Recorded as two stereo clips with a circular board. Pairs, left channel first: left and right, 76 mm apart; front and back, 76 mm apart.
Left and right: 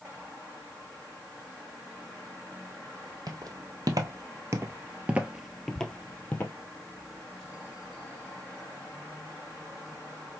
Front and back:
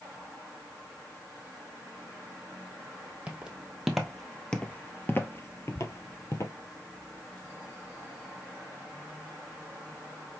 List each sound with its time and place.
3.3 s footsteps: 100° right, 1.4 m; by 6.5 s 30° left, 1.2 m
5.8 s ticking: 65° right, 1.7 m